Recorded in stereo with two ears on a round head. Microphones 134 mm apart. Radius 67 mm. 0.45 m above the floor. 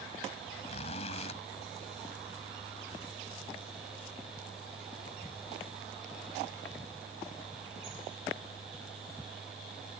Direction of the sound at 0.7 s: 45° left (ahead or behind).